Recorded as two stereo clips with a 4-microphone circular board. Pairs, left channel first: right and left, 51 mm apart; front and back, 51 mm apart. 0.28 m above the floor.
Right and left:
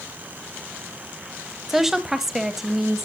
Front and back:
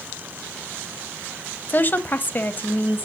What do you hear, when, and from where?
1.7 s a woman speaking: 10° left, 1.1 m